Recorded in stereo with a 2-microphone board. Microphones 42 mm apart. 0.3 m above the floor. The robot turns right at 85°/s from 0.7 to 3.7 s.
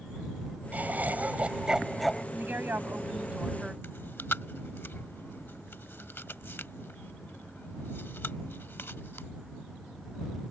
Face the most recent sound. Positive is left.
turn(degrees=60)  # may be behind; listen again after turning